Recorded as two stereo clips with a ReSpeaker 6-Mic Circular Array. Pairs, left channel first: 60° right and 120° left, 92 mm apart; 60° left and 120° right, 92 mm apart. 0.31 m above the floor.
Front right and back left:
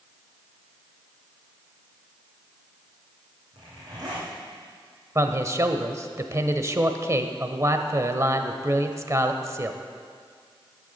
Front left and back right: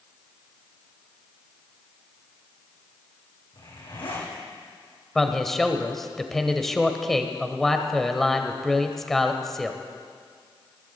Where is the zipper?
75° left, 7.5 m.